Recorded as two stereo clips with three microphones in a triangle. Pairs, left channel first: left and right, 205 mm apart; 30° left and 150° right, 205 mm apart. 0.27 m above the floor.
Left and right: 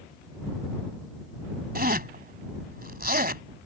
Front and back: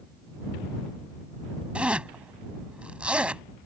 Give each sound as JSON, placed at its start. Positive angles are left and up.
{"t": 1.8, "sound": "a zipper", "azimuth_deg": -65}